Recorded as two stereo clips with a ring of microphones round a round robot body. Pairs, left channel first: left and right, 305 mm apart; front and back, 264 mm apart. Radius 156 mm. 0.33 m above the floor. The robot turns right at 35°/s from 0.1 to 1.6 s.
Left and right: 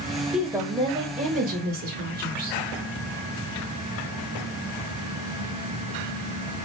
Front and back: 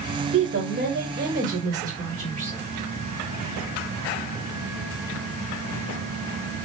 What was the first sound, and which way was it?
A woman speaking, 175° right.